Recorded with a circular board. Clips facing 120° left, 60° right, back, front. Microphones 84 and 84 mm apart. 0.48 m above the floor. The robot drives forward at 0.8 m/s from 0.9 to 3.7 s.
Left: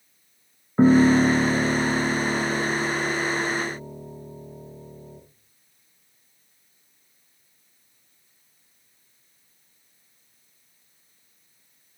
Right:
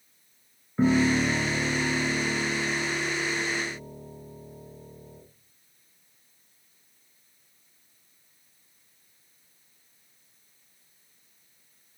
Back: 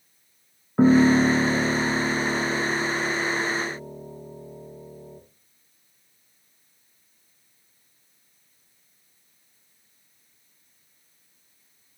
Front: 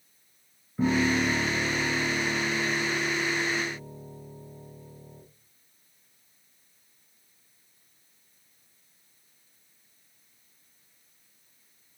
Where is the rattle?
I don't hear a rattle.